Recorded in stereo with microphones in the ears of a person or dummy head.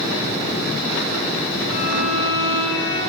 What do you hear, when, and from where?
1.7 s a violin: 65° left (ahead or behind), 4 m